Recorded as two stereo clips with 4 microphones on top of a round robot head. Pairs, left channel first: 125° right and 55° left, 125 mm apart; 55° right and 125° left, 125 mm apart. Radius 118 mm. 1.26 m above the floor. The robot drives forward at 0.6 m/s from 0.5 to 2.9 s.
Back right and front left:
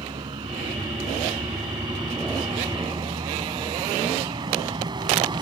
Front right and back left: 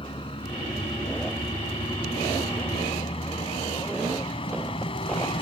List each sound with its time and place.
0.0 s a vehicle: 5° right